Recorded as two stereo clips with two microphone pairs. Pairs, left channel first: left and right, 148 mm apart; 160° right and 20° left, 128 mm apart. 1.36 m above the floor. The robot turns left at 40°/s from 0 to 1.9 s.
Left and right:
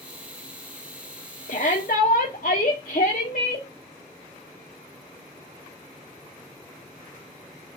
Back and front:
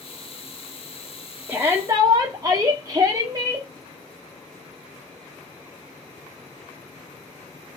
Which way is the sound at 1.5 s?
95° left.